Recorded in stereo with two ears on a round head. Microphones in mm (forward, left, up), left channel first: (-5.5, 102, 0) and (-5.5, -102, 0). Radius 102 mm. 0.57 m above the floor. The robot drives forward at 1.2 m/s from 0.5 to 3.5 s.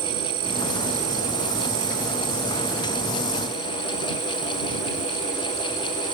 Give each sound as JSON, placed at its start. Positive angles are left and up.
{"t": 0.0, "sound": "an insect", "side_deg": -60}